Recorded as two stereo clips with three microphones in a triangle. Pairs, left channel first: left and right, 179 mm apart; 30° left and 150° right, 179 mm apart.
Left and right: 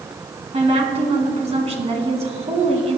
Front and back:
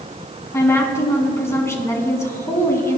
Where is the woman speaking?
45° right, 2.0 m.